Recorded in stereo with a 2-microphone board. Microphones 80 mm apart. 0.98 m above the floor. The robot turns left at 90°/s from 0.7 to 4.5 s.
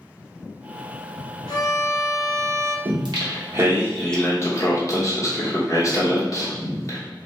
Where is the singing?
80° right, 0.8 m; by 7.0 s 135° left, 0.8 m.